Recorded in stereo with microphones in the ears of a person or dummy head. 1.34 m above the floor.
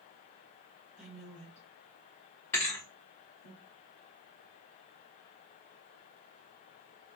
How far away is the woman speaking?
About 1.1 m.